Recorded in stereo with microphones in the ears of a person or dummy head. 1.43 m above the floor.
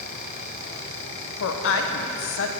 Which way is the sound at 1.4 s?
70° left (ahead or behind).